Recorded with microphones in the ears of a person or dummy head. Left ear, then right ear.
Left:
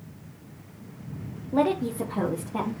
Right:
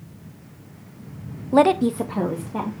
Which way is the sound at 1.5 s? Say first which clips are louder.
Right 8 dB; 55° right (ahead or behind).